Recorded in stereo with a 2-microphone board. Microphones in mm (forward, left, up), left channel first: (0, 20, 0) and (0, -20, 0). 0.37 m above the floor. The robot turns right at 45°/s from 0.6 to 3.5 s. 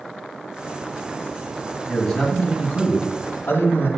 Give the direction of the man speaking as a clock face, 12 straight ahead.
12 o'clock.